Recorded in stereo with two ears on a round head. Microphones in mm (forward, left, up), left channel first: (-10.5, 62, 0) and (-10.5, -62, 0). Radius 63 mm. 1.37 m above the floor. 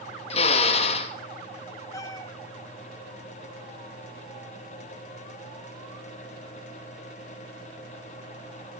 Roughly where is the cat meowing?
Left.